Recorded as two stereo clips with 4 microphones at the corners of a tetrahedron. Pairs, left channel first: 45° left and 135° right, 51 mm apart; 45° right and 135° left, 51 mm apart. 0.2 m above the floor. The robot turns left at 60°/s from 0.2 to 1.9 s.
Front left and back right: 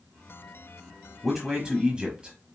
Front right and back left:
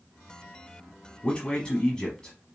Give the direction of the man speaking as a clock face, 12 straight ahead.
2 o'clock.